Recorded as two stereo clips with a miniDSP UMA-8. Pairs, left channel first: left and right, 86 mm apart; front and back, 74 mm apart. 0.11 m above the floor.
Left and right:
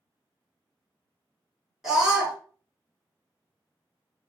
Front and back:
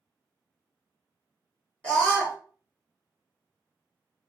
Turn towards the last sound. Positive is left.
turn(degrees=-10)